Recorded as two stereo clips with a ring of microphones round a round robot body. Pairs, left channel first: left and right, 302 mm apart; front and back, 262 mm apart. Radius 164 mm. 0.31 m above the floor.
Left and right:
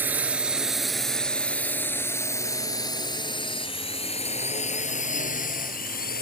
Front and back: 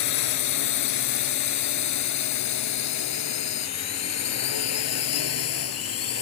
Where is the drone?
5° right; by 6.2 s 30° left.